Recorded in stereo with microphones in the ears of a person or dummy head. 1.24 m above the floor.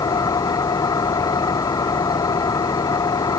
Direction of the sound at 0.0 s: 10° left (ahead or behind).